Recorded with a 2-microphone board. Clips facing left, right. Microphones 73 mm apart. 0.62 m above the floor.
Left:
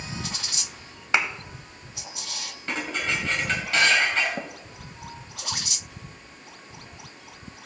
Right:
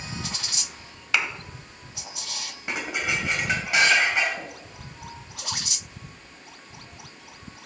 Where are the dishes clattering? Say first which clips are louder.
Even; 15° right (ahead or behind), 2 m.